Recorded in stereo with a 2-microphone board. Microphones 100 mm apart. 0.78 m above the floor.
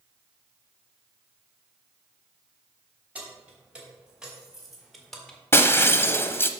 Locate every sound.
3.1 s keys jangling: 15° right (ahead or behind), 3.5 m; by 5.4 s 5° left (ahead or behind), 1.6 m
5.5 s breaking glass: 25° left (ahead or behind), 0.6 m